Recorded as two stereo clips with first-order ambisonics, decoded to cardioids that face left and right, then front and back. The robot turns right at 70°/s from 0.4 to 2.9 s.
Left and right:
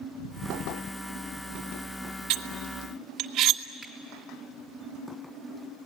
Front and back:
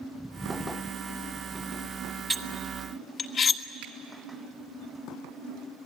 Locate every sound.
2.3 s cutlery clinking: 95° right, 1.5 m; by 3.6 s 50° right, 1.5 m
3.8 s a finger snap: straight behind, 3 m